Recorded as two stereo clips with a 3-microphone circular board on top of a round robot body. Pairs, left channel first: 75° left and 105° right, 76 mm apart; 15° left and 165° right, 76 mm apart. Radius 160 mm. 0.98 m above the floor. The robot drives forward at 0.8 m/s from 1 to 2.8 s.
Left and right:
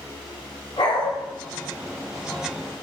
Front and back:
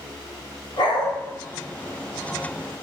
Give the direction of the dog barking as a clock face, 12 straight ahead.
11 o'clock.